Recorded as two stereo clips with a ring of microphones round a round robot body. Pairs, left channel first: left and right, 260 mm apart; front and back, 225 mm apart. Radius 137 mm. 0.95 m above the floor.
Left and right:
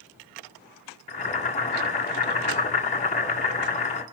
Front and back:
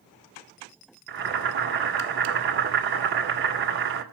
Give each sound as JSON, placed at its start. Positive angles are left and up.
{"t": 1.1, "sound": "boiling", "azimuth_deg": 155, "distance_m": 2.5}